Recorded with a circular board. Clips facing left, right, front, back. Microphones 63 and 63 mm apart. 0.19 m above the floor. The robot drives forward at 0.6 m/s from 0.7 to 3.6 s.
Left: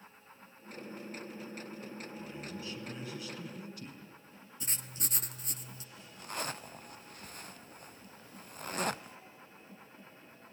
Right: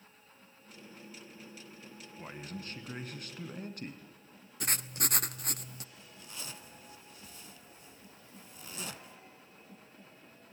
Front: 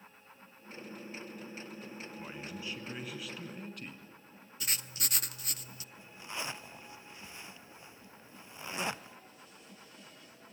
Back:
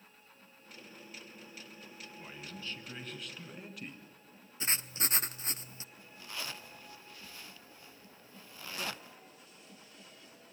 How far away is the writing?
About 0.6 m.